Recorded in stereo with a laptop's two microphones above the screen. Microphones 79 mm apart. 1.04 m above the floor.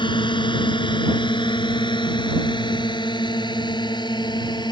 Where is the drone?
85° left; by 4.7 s 65° left (ahead or behind).